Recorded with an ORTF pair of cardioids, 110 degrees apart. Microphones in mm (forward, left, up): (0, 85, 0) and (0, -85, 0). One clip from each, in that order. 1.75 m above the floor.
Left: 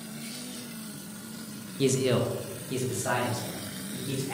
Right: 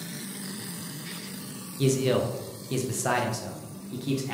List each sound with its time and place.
1.8 s a man speaking: 10° left, 0.6 m; by 4.3 s 45° right, 1.6 m